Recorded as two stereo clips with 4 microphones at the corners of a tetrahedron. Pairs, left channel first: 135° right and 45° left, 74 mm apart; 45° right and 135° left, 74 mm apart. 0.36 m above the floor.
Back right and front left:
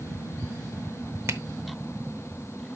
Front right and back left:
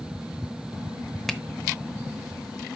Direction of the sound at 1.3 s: 35° left.